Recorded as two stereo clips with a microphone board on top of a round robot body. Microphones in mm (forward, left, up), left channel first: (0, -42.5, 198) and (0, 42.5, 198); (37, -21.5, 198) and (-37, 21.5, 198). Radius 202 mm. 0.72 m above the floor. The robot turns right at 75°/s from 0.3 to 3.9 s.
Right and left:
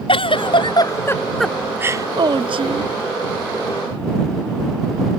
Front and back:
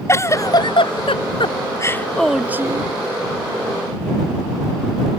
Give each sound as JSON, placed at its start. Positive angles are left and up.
{"t": 0.1, "sound": "a giggle", "azimuth_deg": -85}